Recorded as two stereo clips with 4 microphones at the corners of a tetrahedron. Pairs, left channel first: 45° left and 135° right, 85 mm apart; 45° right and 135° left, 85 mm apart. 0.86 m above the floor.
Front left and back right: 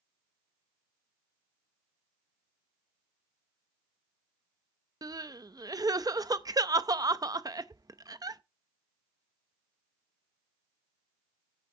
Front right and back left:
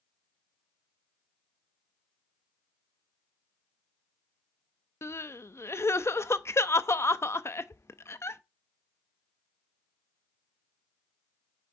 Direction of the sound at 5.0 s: 100° right.